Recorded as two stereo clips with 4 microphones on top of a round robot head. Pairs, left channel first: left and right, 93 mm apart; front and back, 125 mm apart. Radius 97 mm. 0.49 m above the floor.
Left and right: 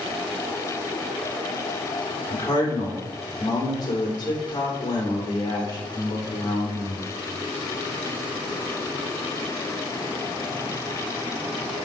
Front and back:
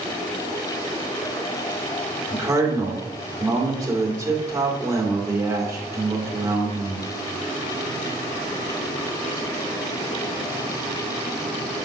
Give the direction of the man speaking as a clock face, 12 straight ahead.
8 o'clock.